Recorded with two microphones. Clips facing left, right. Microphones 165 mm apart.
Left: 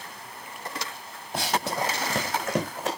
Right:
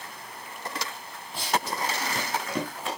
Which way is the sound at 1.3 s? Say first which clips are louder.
Left 2 dB; 55° left (ahead or behind).